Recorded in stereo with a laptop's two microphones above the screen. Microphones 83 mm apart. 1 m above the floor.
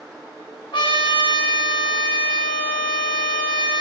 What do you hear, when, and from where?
0.7 s a trumpet: 80° left, 3 m